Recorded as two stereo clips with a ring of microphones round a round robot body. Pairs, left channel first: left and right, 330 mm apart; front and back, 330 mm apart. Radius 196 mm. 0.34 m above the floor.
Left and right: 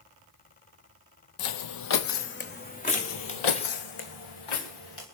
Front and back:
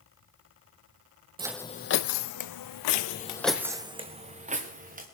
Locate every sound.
1.4 s footsteps: 105° left, 0.6 m; by 3.7 s 15° left, 2 m
2.9 s footsteps: 10° left, 0.6 m; by 5.0 s 115° left, 3.5 m